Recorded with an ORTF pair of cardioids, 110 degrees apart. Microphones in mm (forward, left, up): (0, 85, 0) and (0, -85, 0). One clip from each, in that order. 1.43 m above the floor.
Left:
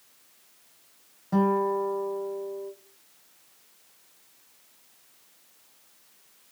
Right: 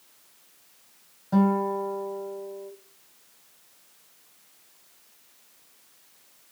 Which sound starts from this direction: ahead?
A guitar, at 1.3 s.